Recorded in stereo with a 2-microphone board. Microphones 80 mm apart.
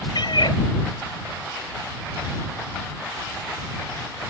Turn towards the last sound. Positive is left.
turn(degrees=70)  # may be behind; listen again after turning